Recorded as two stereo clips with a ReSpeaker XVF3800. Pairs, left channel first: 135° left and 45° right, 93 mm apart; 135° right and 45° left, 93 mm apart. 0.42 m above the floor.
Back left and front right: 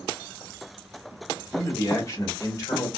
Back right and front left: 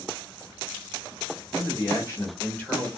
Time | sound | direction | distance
1.5 | a man speaking | 170° right | 1.7 m